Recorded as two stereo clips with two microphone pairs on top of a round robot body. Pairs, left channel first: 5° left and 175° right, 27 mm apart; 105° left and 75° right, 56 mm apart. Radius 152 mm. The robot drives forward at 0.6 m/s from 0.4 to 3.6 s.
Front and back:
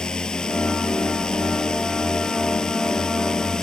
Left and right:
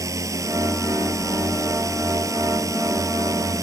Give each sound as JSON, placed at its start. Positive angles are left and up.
{"t": 0.0, "sound": "a drone", "azimuth_deg": -55}